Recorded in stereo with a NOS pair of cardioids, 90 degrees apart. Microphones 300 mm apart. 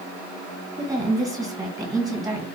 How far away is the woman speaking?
About 1.9 m.